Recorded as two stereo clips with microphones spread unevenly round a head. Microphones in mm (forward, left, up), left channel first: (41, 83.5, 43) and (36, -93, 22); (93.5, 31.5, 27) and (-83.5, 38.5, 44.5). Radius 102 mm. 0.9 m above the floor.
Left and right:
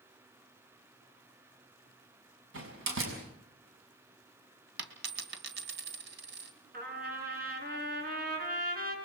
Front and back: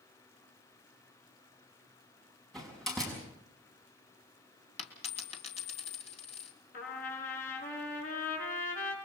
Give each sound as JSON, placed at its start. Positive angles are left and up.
{"t": 2.5, "sound": "a door slam", "azimuth_deg": -90, "distance_m": 6.5}
{"t": 4.8, "sound": "a dropped coin", "azimuth_deg": -65, "distance_m": 2.5}
{"t": 6.7, "sound": "a trumpet", "azimuth_deg": -55, "distance_m": 6.0}